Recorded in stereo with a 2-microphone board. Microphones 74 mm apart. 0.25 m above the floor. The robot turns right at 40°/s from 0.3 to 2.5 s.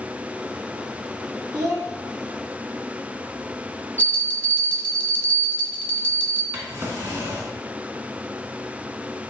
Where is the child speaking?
55° right (ahead or behind), 1.8 m; by 1.9 s 45° right (ahead or behind), 1.8 m.